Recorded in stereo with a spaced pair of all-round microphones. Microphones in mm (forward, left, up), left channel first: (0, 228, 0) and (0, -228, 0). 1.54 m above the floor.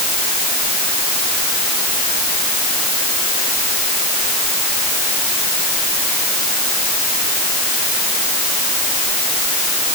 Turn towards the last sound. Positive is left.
No sound to turn to.